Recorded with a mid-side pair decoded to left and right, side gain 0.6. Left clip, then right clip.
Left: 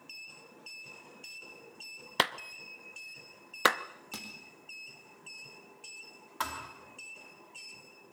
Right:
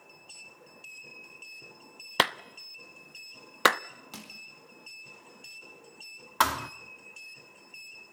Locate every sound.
2.2 s a clap: 20° right, 0.6 m
4.1 s crushing: 10° left, 4 m
6.4 s a thud: 55° right, 0.9 m